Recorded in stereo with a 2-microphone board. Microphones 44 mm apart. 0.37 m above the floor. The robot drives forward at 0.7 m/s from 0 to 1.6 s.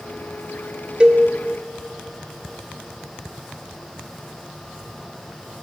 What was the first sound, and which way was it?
A cowbell, 25° right (ahead or behind).